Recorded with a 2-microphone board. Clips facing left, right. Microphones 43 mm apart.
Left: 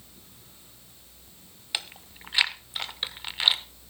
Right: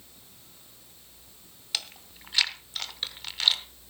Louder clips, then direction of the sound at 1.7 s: Left 1 dB; 20° left (ahead or behind).